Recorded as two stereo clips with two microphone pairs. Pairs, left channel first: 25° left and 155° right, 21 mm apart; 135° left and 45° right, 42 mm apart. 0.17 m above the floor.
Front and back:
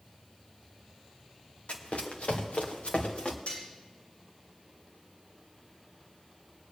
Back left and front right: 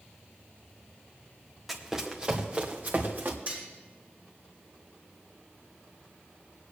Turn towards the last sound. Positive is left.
turn(degrees=15)